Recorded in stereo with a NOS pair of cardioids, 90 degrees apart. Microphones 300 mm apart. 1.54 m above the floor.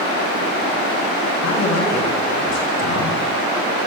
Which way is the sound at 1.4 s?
65° left.